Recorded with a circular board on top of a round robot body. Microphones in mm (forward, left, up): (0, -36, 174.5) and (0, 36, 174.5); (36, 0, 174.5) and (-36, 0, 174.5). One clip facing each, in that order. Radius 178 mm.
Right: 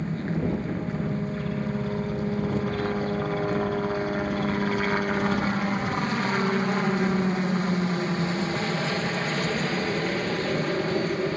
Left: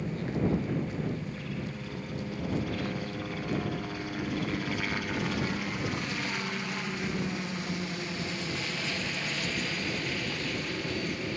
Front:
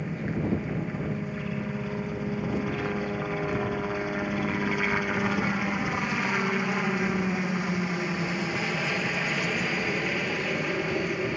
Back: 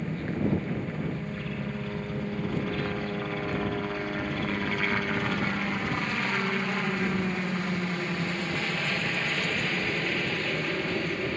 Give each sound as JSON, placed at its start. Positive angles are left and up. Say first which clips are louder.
{"t": 0.0, "sound": "a helicopter", "louder": "right 3 dB, back 1 dB", "azimuth_deg": -75}